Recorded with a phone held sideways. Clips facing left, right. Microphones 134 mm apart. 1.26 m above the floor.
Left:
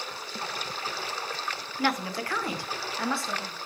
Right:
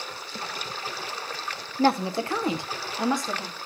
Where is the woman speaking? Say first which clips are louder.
Right 6 dB; 35° right (ahead or behind), 0.7 m; by 3.6 s 15° right (ahead or behind), 2.5 m.